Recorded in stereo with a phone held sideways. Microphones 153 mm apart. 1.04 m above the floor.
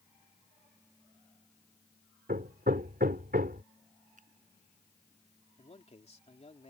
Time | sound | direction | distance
2.3 | hammering | 75° right (ahead or behind) | ?
4.2 | a finger snap | 55° right (ahead or behind) | ?
5.6 | a man speaking | 40° left (ahead or behind) | ?